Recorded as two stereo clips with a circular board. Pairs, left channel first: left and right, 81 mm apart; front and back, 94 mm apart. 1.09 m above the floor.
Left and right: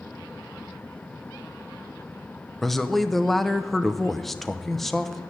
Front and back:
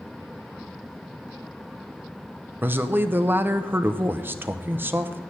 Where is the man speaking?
170° left, 0.7 m.